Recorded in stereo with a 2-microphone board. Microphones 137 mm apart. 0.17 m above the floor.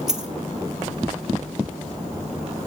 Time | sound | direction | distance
0.1 | a dropped coin | 5° right (ahead or behind) | 1.2 m